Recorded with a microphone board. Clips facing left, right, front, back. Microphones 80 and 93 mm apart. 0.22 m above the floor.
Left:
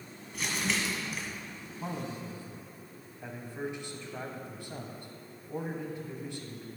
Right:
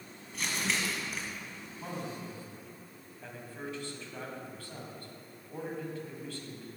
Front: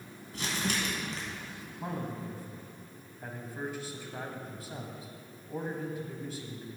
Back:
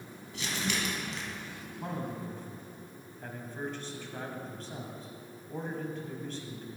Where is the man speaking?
65° left, 1.1 m.